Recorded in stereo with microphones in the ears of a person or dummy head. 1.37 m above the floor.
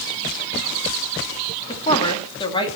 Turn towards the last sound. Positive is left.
turn(degrees=25)  # may be behind; listen again after turning